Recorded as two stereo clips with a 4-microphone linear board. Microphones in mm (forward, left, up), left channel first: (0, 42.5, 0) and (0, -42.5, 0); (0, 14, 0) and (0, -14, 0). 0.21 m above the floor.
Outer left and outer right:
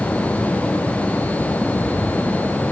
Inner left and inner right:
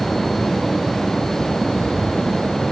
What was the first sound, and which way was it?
Only background noise.